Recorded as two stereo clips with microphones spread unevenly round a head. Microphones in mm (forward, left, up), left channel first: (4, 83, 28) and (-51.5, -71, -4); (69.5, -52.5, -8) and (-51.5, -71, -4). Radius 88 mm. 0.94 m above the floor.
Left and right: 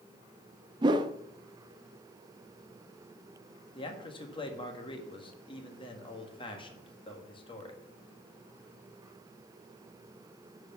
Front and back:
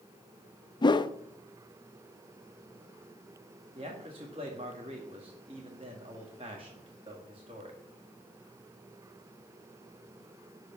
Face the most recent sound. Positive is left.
turn(degrees=130)